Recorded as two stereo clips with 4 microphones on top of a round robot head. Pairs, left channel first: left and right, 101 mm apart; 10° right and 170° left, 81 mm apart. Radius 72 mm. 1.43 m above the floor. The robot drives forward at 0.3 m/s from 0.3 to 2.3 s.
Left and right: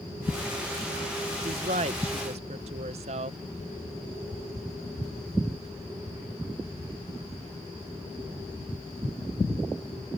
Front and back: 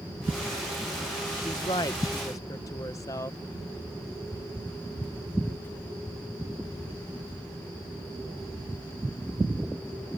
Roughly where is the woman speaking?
Ahead right.